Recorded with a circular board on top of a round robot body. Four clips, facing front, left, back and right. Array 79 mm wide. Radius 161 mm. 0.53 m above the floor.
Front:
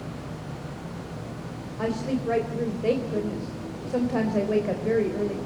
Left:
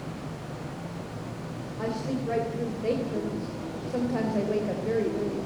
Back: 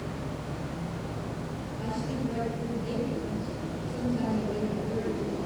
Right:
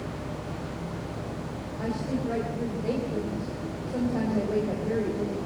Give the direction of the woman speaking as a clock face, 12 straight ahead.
12 o'clock.